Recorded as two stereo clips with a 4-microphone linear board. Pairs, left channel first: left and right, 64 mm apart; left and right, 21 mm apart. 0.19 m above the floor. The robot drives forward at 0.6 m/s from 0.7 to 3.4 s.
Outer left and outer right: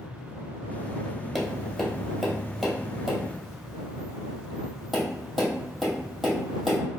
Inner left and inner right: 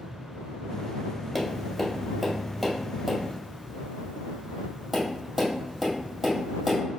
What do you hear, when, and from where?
1.4 s tapping: centre (ahead or behind), 0.9 m